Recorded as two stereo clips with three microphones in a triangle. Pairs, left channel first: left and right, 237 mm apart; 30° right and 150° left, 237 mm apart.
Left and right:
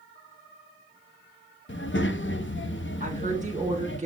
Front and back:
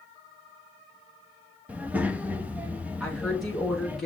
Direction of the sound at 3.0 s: 120° right.